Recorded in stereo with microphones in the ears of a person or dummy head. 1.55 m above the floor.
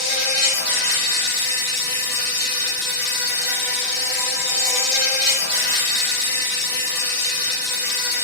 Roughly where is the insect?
Right.